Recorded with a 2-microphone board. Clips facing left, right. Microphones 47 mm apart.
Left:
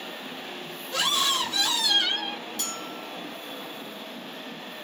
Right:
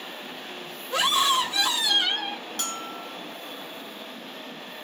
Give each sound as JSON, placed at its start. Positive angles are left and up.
{"t": 0.9, "sound": "a scream", "side_deg": -25, "distance_m": 1.4}
{"t": 2.6, "sound": "a bell", "side_deg": -50, "distance_m": 0.9}